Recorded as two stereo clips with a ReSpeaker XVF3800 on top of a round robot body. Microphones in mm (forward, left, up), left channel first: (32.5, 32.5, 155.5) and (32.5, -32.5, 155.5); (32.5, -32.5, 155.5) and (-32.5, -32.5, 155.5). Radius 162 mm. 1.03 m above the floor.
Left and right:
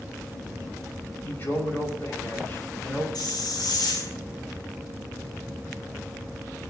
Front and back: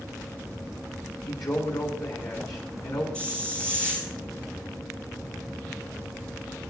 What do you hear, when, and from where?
1.2 s a man speaking: 30° left, 6 m
3.1 s a hiss: 75° left, 3 m